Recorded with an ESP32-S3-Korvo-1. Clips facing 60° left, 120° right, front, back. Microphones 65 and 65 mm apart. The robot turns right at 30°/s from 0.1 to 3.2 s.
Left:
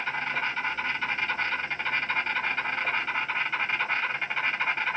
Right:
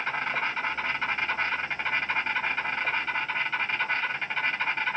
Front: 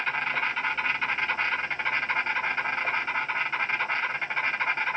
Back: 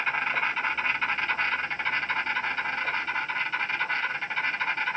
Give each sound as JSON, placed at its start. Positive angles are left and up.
{"t": 0.0, "sound": "an insect", "azimuth_deg": -110, "distance_m": 1.7}